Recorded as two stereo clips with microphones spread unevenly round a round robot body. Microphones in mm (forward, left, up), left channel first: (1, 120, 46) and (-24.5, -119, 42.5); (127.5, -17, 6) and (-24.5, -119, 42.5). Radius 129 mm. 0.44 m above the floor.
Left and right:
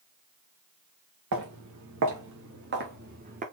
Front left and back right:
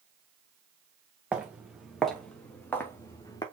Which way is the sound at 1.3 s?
65° right.